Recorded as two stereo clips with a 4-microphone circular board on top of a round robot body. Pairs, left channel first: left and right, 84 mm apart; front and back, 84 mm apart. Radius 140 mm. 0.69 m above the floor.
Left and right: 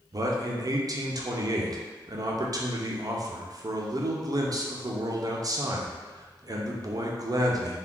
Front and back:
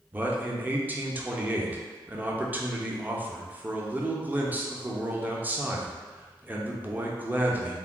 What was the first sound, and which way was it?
A man speaking, 115° right.